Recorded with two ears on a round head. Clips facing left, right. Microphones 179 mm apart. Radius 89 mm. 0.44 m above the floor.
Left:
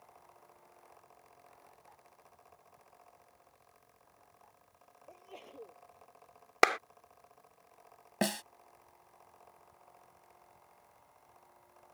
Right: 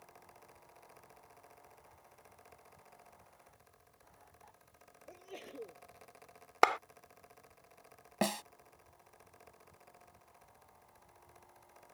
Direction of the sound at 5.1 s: 20° right (ahead or behind).